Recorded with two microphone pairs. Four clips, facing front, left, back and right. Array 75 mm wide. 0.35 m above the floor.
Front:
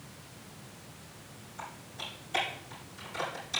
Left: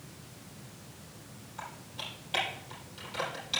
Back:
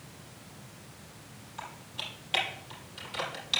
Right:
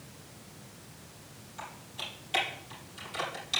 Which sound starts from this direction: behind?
Typing on a keyboard, at 1.6 s.